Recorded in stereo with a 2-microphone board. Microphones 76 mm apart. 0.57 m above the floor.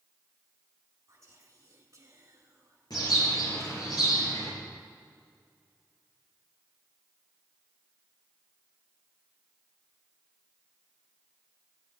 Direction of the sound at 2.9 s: 65° left (ahead or behind).